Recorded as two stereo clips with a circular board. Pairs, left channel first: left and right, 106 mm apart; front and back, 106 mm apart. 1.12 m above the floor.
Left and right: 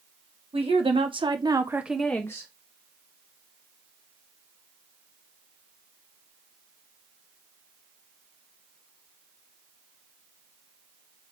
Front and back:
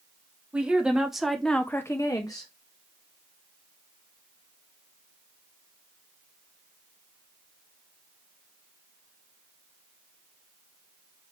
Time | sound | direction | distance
0.5 | a woman speaking | 105° right | 1.7 m